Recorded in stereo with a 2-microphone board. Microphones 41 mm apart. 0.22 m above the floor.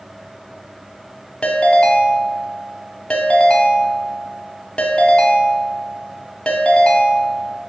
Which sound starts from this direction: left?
A ringtone, at 1.4 s.